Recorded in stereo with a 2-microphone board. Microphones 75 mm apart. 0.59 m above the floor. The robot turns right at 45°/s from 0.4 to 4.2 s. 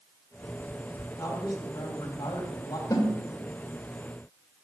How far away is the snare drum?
About 2 m.